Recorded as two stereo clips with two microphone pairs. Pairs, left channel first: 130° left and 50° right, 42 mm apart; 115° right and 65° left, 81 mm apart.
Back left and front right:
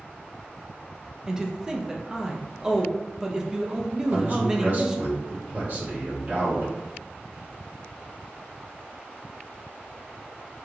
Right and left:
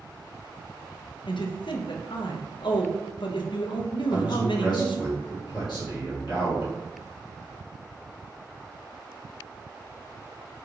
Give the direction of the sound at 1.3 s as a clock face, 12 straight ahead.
4 o'clock.